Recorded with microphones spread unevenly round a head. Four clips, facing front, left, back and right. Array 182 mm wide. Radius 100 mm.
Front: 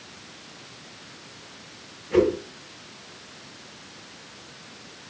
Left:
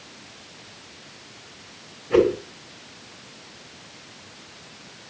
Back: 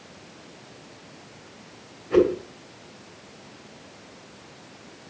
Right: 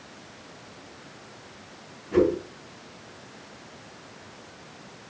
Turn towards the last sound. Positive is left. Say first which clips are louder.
# left 3 dB, back 1 dB
turn(degrees=105)